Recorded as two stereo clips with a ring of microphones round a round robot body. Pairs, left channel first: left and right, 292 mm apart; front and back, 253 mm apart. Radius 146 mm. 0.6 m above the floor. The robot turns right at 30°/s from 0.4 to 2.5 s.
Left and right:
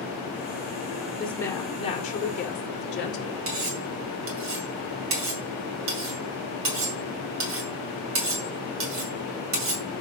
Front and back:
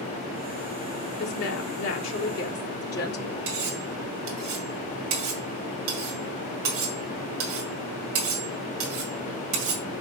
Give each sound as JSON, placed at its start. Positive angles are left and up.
{"t": 1.2, "sound": "a woman speaking", "azimuth_deg": 0, "distance_m": 2.0}
{"t": 3.5, "sound": "cutlery clinking", "azimuth_deg": -135, "distance_m": 2.0}